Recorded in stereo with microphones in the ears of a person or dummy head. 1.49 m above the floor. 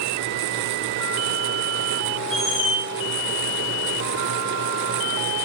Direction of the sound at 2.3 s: 55° left (ahead or behind).